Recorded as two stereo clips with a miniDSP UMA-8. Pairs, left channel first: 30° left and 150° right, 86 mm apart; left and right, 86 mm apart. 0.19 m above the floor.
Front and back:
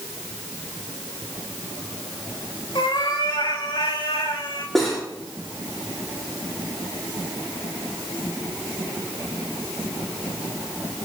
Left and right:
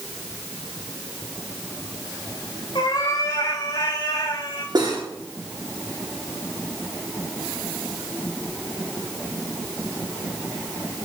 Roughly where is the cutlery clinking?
Ahead right.